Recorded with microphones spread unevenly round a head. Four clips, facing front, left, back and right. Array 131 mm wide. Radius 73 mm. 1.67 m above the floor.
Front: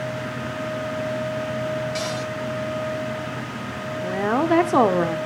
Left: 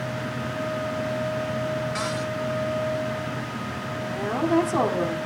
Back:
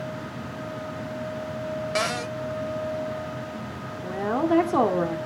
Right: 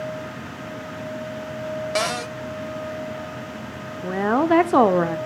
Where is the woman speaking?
50° right, 1.2 m.